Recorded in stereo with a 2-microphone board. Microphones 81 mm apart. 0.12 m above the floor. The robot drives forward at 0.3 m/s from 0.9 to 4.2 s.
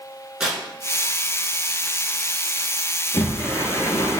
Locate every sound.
0.4 s tearing paper: 10° right (ahead or behind), 1.0 m
3.1 s a sliding door: 40° left (ahead or behind), 0.7 m; by 4.2 s 50° left (ahead or behind), 0.6 m